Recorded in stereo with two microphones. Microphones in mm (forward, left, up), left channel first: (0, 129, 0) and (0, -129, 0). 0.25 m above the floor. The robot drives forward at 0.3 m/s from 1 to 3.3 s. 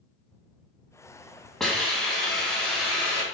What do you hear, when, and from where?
1.6 s a hiss: centre (ahead or behind), 0.6 m